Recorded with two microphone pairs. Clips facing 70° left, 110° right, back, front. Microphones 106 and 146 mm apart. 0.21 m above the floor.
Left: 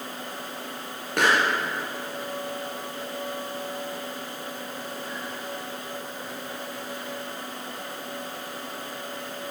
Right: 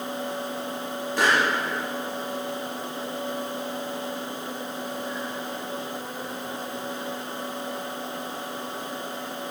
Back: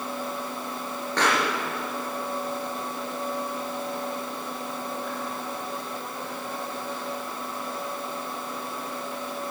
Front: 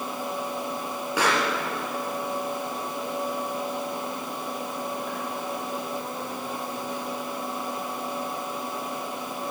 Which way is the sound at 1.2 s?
80° left.